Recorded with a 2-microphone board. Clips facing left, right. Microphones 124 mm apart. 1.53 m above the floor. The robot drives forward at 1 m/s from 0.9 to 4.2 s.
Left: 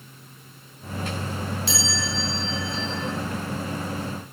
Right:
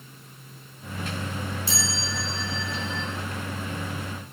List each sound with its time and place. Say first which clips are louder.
1.7 s a chime: left 3 dB; 70° left (ahead or behind), 6 m; by 3.1 s 80° left, 5.5 m